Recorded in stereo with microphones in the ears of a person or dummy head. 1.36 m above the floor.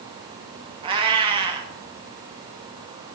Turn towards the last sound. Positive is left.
turn(degrees=-25)  # may be behind; listen again after turning